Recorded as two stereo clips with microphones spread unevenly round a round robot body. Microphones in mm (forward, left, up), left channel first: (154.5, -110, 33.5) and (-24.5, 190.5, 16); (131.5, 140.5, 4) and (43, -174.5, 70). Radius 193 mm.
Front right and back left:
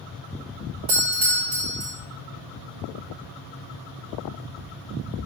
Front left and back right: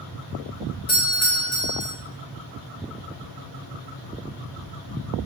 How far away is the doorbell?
About 4.5 m.